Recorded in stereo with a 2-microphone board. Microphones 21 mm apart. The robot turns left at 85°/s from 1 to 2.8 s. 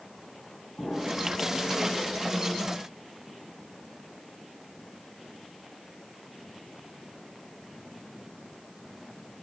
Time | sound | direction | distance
0.8 | an explosion | 100° left | 4.5 m